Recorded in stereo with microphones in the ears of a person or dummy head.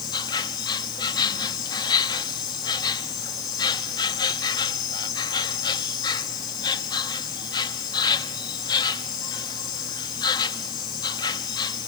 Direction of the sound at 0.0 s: 20° left (ahead or behind).